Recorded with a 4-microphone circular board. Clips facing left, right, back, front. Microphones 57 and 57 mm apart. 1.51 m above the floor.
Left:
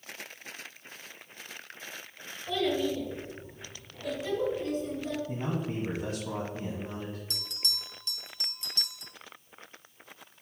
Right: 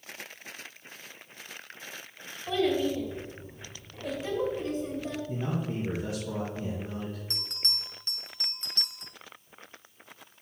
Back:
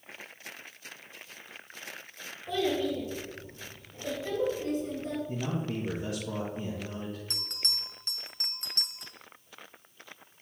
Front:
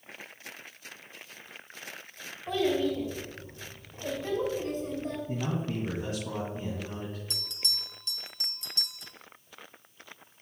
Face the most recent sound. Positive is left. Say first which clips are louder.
# right 2 dB, even
turn(degrees=-140)